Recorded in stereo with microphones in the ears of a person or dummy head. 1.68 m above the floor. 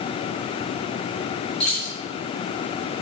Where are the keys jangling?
5° left (ahead or behind), 4 m.